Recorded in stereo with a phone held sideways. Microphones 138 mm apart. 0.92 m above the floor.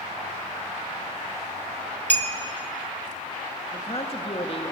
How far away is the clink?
About 1.1 m.